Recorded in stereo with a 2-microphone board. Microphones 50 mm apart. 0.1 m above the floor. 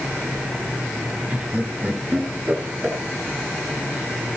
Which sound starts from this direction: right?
Laughter, at 1.3 s.